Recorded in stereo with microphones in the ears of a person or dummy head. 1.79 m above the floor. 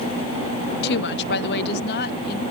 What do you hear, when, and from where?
0.8 s a woman speaking: 60° left (ahead or behind); by 2.4 s 65° left (ahead or behind)